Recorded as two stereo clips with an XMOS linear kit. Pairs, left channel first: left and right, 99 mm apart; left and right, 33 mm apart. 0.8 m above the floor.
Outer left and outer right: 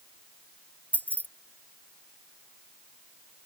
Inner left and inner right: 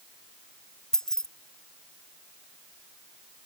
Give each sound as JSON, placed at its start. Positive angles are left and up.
{"t": 0.9, "sound": "keys jangling", "side_deg": 15}